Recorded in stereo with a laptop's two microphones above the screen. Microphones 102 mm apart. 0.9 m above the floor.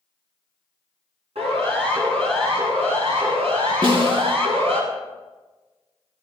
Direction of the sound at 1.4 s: 80° right.